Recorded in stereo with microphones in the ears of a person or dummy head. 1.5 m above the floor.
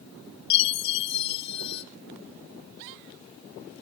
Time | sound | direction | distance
0.5 | a chime | 35° left (ahead or behind) | 0.7 m